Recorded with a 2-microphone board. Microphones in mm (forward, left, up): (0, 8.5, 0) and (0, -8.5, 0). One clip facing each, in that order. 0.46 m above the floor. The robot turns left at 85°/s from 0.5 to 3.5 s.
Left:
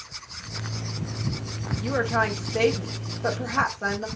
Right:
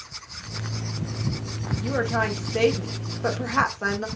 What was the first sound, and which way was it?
A woman speaking, 55° left.